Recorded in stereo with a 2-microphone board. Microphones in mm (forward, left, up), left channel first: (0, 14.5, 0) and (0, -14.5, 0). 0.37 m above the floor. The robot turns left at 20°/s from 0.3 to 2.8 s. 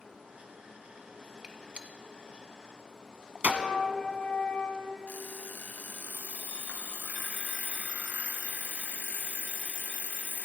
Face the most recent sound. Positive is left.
turn(degrees=85)